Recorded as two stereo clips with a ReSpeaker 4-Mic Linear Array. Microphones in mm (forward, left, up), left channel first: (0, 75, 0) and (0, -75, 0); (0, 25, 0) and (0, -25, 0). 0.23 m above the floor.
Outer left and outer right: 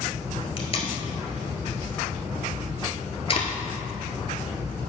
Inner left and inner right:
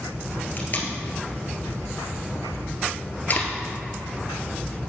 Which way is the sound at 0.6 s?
45° left (ahead or behind).